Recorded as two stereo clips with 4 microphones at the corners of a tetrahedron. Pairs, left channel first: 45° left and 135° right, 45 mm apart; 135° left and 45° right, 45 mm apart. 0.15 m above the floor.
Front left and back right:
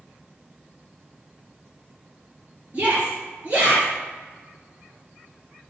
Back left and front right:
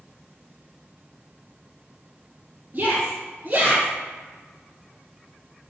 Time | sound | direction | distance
2.7 | a shout | 90° right | 3 m